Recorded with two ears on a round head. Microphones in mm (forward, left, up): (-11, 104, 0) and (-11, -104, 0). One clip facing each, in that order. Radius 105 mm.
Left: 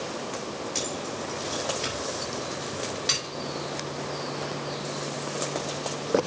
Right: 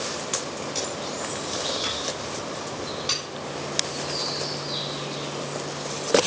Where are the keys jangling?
30° left (ahead or behind), 6.5 m.